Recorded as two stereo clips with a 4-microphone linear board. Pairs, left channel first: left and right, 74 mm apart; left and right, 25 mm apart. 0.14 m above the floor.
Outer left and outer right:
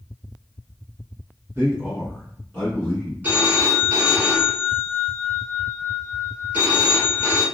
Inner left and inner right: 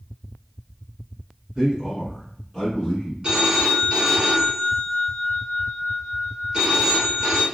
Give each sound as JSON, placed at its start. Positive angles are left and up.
{"t": 1.6, "sound": "a man speaking", "side_deg": -30, "distance_m": 1.3}
{"t": 3.2, "sound": "a phone ringing", "side_deg": -20, "distance_m": 1.2}